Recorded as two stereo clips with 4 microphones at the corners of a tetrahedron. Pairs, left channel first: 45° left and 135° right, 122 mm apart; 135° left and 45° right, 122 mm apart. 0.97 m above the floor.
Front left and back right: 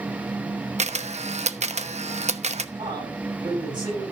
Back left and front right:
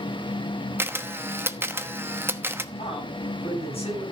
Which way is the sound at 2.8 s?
175° left.